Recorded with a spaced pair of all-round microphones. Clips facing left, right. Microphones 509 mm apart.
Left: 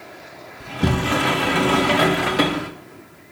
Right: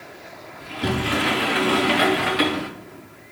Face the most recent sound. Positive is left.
turn(degrees=65)  # may be behind; listen again after turning